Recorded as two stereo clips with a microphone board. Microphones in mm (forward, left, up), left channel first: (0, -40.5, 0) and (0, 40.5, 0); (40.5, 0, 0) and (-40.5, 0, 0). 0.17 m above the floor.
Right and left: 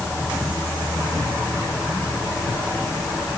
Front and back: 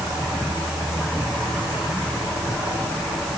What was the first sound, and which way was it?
Only background noise.